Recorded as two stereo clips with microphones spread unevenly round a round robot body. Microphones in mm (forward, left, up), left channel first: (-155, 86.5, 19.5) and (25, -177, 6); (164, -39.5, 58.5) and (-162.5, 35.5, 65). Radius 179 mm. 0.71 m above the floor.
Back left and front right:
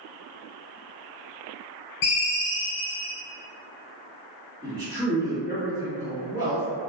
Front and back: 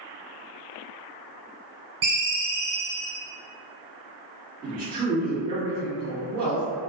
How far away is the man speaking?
About 1.7 m.